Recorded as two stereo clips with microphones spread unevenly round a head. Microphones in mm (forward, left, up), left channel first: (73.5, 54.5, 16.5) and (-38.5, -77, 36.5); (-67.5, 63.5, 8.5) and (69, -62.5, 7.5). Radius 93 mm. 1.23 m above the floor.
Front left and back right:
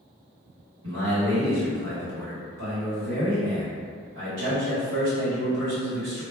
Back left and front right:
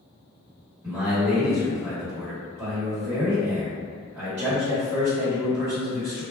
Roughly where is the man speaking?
Behind right.